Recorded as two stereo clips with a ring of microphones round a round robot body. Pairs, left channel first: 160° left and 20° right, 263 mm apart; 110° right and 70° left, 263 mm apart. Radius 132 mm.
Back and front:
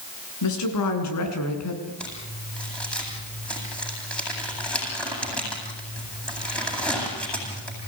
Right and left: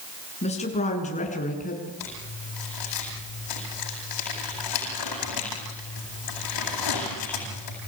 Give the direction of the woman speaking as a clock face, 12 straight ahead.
6 o'clock.